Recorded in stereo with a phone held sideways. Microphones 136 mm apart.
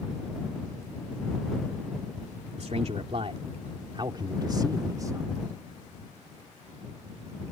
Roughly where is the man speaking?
Right.